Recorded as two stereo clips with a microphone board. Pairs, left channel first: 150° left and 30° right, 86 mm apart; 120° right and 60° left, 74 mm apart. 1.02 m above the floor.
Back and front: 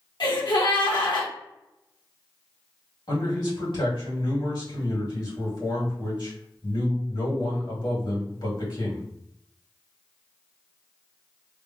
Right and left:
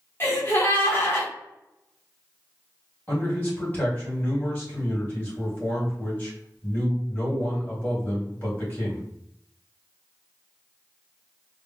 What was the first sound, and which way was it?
A gasp, straight behind.